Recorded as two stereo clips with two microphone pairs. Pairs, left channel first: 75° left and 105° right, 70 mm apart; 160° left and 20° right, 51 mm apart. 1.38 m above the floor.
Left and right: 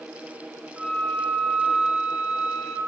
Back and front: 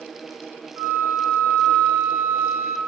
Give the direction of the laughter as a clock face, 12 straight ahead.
No laughter in this recording.